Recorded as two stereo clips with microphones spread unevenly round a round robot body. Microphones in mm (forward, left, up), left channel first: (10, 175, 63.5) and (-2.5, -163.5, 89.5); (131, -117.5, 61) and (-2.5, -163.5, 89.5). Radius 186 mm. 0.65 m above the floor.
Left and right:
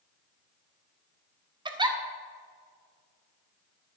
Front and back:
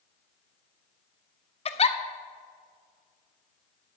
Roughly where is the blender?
No blender in this recording.